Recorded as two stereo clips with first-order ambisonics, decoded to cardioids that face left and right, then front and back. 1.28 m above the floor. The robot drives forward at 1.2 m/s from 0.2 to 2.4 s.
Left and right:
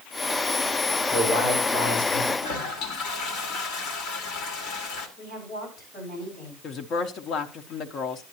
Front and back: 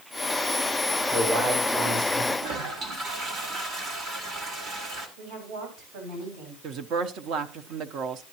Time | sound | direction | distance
1.1 | a man speaking | 120° left | 5.5 m
2.4 | a toilet flushing | 125° left | 1.5 m
5.2 | a woman speaking | 150° left | 6.5 m
6.6 | a woman speaking | 140° left | 0.7 m